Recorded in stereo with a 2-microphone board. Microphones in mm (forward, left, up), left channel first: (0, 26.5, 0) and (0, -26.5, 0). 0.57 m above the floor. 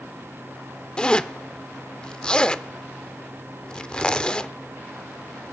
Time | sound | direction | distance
1.0 | a zipper | 15° left (ahead or behind) | 0.5 m